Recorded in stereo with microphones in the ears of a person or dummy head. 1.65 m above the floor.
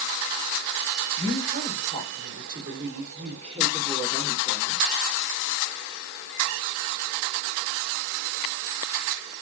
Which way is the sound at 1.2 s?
70° right (ahead or behind).